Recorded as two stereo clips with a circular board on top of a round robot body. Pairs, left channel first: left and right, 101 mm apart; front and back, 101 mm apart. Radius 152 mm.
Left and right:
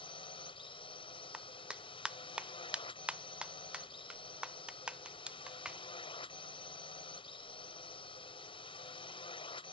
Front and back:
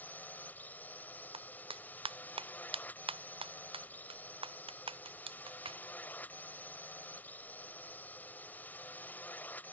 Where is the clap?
170° right.